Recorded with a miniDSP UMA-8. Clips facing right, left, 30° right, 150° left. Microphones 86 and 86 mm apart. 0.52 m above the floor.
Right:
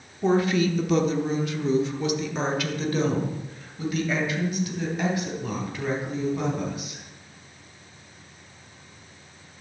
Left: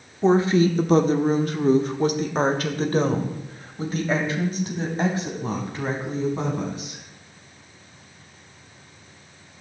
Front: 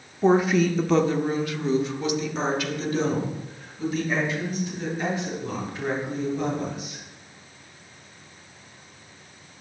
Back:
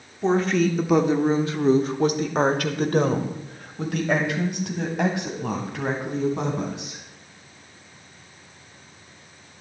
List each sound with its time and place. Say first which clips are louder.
0.2 s a woman speaking: left 4 dB, front 1 dB; 35° left, 1.1 m; by 7.0 s 150° left, 4.5 m